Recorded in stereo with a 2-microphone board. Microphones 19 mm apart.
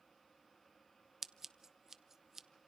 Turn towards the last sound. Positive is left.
turn(degrees=-25)  # may be behind; listen again after turning